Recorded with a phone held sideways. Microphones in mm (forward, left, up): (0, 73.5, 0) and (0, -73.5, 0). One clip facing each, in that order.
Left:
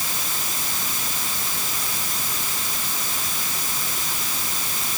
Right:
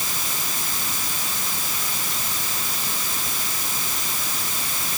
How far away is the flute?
No flute in this recording.